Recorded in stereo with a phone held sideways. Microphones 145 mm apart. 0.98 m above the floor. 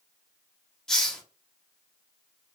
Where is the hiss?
5° left (ahead or behind), 0.7 m.